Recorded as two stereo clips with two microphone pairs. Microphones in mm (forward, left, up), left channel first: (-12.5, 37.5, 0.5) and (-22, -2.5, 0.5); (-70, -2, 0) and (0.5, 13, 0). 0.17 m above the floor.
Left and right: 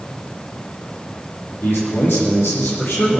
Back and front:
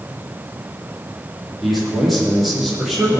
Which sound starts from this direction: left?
A man speaking, at 1.6 s.